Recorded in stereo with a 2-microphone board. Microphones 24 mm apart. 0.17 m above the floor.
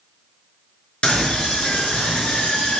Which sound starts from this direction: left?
A scream, at 1.0 s.